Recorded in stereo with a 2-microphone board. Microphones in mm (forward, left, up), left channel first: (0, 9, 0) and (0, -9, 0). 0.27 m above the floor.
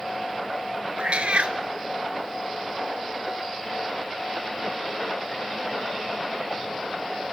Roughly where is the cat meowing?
Right.